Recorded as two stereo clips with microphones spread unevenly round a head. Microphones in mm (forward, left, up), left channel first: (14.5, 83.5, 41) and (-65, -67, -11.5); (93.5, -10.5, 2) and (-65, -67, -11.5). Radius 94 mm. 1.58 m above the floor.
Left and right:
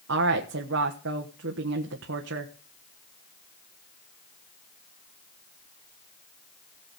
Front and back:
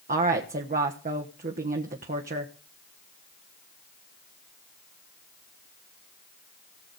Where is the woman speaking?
120° right, 1.3 m.